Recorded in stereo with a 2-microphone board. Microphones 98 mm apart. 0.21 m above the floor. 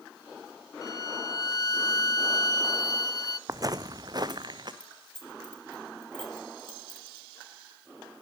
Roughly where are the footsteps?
Right.